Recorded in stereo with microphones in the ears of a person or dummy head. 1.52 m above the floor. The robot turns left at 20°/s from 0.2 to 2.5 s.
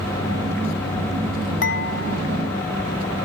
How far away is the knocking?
I don't hear knocking.